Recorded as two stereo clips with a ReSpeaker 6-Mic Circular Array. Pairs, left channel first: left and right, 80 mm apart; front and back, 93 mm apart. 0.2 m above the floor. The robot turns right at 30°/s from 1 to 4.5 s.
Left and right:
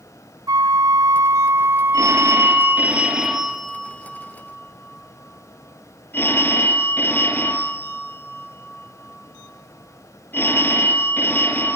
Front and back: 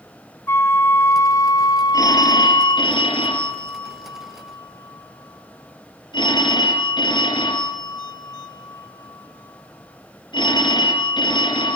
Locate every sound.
0.5 s a flute: 60° right, 0.7 m; by 2.9 s straight ahead, 0.7 m
1.9 s a phone ringing: 50° right, 3.5 m; by 11.8 s 30° left, 3.5 m